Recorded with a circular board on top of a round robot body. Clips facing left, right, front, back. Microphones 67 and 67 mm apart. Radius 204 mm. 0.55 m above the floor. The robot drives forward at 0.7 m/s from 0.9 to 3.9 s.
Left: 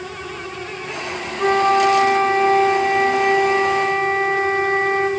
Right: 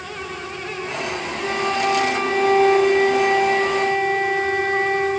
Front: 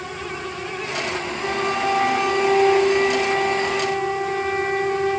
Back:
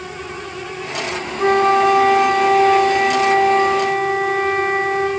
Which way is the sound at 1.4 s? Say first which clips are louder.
Left 8 dB, back 11 dB; 140° left.